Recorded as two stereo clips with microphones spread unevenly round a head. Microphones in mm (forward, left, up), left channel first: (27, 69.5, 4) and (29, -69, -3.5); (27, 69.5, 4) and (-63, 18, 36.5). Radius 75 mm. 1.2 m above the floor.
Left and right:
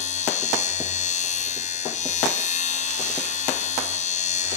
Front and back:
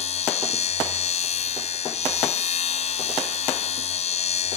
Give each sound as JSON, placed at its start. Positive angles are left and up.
{"t": 0.0, "sound": "a machine running", "azimuth_deg": 55}